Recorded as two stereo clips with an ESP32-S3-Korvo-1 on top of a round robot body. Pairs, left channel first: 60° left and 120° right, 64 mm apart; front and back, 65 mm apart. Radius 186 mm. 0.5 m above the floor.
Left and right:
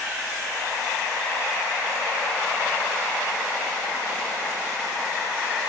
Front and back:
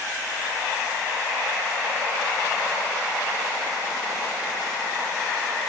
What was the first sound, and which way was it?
Only background noise.